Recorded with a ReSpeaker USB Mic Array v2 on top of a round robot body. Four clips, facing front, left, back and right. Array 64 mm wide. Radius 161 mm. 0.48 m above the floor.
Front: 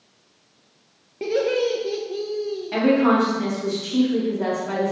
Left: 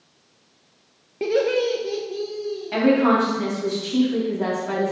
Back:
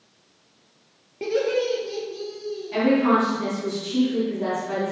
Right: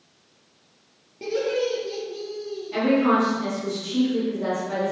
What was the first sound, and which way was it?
Laughter, 85° left.